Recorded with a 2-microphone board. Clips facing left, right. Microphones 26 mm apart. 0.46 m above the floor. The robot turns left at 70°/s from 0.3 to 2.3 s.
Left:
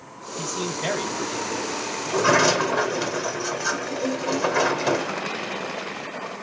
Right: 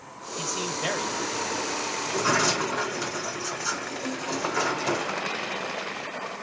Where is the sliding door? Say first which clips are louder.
Left 6 dB; 55° left (ahead or behind), 1.1 m; by 5.1 s 45° left (ahead or behind), 1.1 m.